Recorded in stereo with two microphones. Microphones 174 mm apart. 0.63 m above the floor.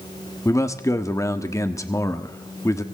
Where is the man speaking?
20° left (ahead or behind), 1.1 m.